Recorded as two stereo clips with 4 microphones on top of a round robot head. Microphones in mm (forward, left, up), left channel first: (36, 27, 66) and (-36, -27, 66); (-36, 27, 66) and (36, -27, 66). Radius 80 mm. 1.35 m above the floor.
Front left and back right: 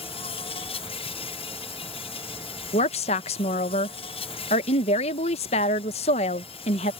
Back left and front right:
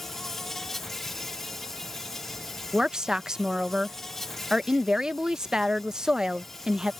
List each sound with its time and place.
0.0 s an insect: 55° left
2.7 s a woman speaking: 45° left